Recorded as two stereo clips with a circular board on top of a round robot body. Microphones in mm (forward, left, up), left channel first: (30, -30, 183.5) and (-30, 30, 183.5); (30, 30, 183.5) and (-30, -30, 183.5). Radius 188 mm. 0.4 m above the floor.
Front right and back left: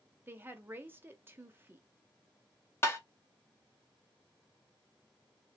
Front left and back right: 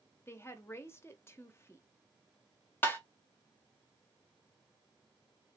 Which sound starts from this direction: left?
A woman speaking, at 0.3 s.